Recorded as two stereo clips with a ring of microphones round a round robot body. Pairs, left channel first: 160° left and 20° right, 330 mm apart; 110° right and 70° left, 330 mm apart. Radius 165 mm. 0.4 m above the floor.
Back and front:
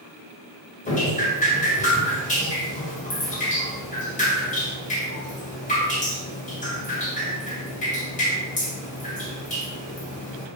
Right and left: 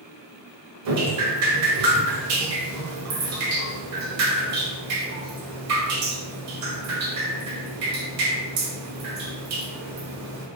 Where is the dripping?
95° left, 1.0 m.